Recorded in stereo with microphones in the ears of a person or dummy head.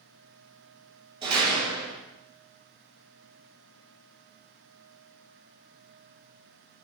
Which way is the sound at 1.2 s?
25° right (ahead or behind).